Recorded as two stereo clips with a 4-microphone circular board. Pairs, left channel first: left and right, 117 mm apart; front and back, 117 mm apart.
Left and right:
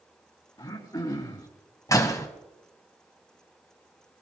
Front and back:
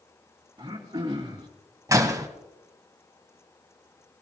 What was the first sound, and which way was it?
Throat clearing, 135° left.